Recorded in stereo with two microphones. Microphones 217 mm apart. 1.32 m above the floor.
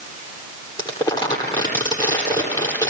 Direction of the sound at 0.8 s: 20° left (ahead or behind).